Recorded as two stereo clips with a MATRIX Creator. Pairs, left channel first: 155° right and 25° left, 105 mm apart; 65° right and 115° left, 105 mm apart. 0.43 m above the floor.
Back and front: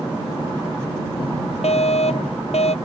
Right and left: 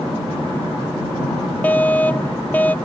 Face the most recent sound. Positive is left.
turn(degrees=-145)